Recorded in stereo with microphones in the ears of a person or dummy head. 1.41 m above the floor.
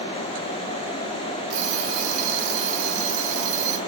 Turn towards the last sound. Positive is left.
turn(degrees=-45)  # may be behind; listen again after turning